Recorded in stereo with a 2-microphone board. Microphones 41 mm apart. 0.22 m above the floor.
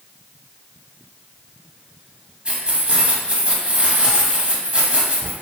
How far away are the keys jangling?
About 0.8 m.